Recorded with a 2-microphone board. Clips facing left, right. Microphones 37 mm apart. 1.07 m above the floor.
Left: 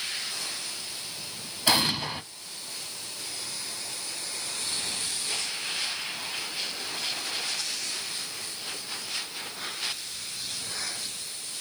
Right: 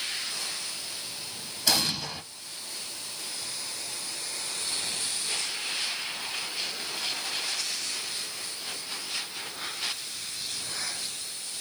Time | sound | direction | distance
1.7 | an explosion | 25° left (ahead or behind) | 0.9 m